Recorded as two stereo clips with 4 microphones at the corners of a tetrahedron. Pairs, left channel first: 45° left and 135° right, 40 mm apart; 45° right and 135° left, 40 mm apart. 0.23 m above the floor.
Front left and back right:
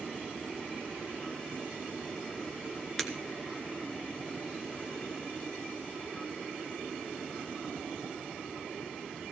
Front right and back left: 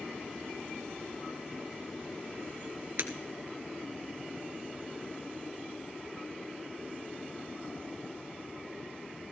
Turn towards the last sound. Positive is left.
turn(degrees=125)